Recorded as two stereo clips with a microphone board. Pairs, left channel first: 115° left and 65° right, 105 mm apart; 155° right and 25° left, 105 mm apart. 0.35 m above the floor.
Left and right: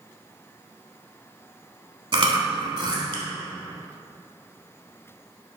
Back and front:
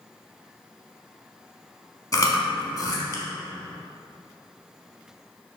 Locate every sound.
2.1 s chewing: 105° right, 0.7 m